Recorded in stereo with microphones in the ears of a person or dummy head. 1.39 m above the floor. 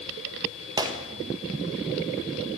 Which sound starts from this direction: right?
A gunshot, at 0.8 s.